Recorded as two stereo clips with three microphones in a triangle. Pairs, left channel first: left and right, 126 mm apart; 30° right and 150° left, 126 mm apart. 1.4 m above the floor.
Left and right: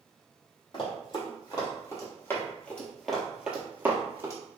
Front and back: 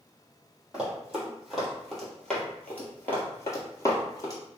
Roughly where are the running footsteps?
Left.